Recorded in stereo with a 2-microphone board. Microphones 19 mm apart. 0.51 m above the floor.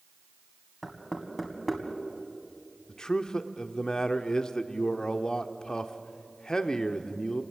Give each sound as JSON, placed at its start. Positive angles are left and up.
{"t": 0.8, "sound": "knocking", "side_deg": 5, "distance_m": 2.5}
{"t": 2.9, "sound": "a man speaking", "side_deg": 40, "distance_m": 1.1}